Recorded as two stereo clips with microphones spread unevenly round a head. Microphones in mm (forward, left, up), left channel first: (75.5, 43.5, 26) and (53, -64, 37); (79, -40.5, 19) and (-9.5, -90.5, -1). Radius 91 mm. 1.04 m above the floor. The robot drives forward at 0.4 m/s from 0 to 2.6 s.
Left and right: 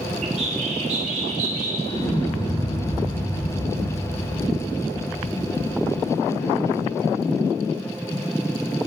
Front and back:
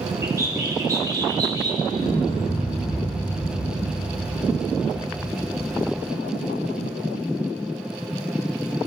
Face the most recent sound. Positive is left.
turn(degrees=40)